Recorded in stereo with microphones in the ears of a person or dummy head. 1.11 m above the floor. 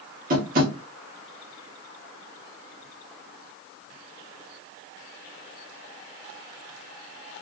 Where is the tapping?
40° right (ahead or behind), 0.9 m.